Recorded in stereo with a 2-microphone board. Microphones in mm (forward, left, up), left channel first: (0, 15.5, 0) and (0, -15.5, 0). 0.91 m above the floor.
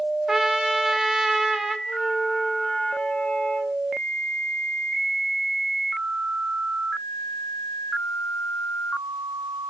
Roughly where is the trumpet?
Centre.